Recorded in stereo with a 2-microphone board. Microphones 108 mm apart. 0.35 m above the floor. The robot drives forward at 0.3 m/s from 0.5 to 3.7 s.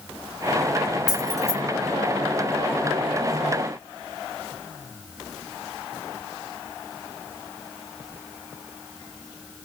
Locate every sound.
1.1 s keys jangling: 35° right (ahead or behind), 1.8 m; by 1.6 s 30° right (ahead or behind), 1.9 m